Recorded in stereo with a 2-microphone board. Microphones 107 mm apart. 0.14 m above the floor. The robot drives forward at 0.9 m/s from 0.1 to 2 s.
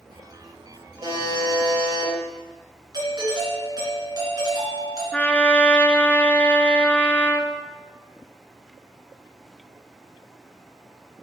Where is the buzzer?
45° right (ahead or behind), 4 m; by 2.1 s 40° right (ahead or behind), 4.5 m.